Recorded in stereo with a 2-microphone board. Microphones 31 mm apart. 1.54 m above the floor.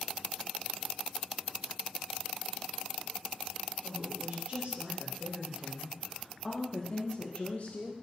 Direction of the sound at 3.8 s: 55° right (ahead or behind).